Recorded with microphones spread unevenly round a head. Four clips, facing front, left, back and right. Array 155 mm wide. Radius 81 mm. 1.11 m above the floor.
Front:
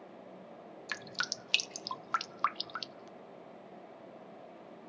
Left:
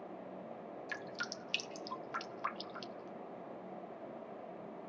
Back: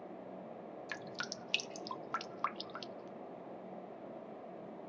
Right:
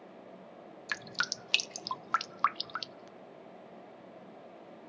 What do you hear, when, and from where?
0.9 s dripping: 85° right, 0.6 m